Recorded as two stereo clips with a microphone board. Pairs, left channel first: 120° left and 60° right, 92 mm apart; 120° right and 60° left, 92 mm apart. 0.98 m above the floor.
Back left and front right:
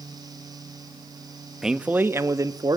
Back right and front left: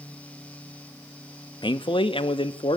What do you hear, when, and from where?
1.6 s a man speaking: 145° right, 1.3 m; by 2.8 s 100° right, 1.8 m